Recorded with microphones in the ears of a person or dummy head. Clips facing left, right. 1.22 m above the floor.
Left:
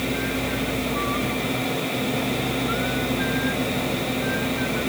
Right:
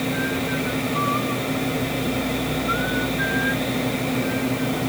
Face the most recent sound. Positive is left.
No sound to turn to.